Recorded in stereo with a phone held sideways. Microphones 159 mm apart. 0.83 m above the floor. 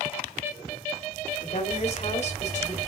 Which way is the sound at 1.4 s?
45° left (ahead or behind).